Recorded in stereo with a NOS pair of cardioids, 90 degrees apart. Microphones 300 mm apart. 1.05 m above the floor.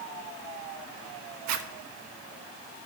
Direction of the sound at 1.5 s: 65° right.